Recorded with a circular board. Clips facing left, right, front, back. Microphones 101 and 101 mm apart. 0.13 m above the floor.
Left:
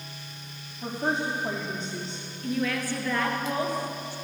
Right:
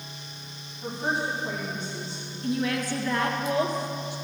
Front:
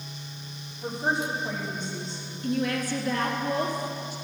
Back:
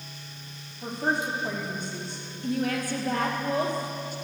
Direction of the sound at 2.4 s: 155° right.